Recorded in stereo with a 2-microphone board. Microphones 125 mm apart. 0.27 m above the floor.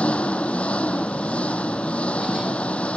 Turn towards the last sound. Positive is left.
turn(degrees=10)  # may be behind; listen again after turning